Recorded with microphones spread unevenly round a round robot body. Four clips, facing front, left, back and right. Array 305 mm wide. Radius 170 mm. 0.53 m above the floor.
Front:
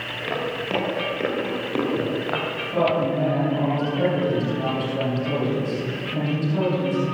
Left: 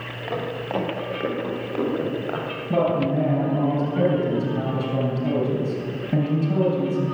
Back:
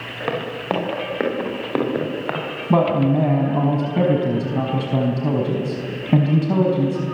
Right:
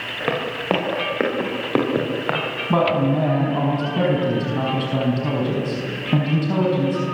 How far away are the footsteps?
About 8.5 m.